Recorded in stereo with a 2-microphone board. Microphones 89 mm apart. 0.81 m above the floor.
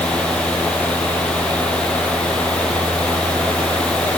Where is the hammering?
I don't hear hammering.